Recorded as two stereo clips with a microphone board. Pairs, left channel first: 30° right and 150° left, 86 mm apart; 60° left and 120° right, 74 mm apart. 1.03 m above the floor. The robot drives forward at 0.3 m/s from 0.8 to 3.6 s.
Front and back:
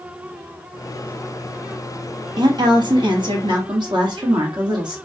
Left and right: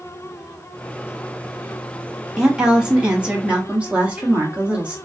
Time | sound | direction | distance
2.4 | a woman speaking | 160° left | 0.7 m